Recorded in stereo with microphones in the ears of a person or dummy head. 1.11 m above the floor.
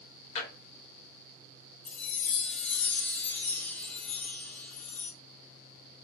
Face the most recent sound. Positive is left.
turn(degrees=10)  # may be behind; listen again after turning